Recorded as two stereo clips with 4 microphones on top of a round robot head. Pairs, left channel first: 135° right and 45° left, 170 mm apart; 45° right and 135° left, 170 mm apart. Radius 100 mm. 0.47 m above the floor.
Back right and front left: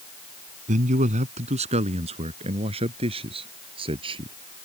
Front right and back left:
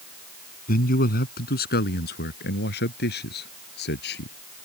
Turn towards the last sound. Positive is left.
turn(degrees=-20)